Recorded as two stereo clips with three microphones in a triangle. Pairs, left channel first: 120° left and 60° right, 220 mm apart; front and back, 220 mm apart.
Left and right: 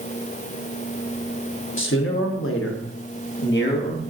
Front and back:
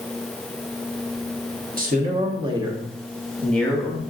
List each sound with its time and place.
1.8 s a man speaking: 135° left, 1.2 m; by 4.0 s 75° left, 1.4 m